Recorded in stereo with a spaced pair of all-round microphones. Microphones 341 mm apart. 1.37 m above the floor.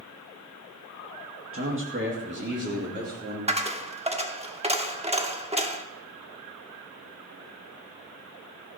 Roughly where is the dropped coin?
Centre.